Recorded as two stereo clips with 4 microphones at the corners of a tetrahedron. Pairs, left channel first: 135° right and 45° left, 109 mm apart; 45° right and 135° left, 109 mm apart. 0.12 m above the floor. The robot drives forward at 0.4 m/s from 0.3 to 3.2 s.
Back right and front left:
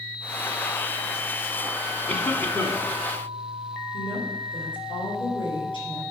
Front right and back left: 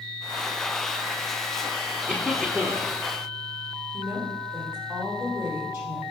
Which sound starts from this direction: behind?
A woman speaking, at 3.9 s.